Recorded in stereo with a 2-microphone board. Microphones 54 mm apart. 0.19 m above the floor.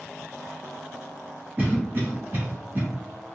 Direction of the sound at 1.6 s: 35° right (ahead or behind).